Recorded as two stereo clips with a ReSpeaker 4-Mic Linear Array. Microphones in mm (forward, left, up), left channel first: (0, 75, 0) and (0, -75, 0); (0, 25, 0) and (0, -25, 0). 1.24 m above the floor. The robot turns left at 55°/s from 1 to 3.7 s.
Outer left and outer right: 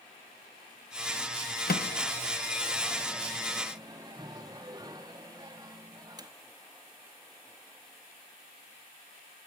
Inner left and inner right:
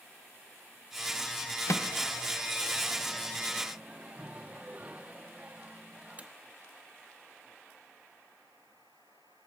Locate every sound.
1.7 s a microwave: 85° left, 0.7 m; by 6.3 s 25° right (ahead or behind), 0.7 m